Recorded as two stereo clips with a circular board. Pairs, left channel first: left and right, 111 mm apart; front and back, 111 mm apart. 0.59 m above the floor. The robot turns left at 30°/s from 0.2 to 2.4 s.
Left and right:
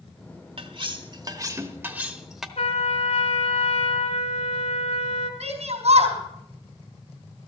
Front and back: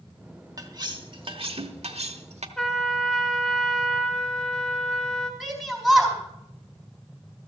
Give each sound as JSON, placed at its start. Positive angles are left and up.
{"t": 0.6, "sound": "cutlery clinking", "azimuth_deg": -125, "distance_m": 1.0}
{"t": 2.6, "sound": "a trumpet", "azimuth_deg": 85, "distance_m": 1.2}
{"t": 5.4, "sound": "a shout", "azimuth_deg": -85, "distance_m": 3.5}